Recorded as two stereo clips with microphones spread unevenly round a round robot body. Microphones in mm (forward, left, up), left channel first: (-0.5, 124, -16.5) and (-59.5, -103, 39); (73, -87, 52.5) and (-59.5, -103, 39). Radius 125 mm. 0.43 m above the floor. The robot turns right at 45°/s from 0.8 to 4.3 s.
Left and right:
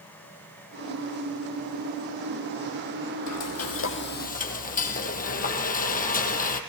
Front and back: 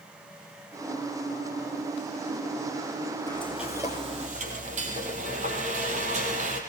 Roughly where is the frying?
Left.